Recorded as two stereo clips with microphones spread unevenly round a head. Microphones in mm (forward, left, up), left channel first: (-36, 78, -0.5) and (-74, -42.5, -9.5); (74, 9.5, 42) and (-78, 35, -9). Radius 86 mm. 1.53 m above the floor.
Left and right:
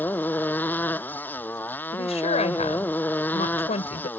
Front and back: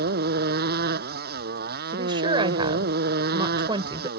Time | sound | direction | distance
0.0 | a motorcycle | 145° left | ?
1.9 | a woman speaking | 105° left | ?